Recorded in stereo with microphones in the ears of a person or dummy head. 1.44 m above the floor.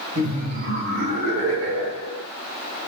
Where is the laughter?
30° right (ahead or behind), 1.4 m; by 2.2 s 80° right, 1.4 m.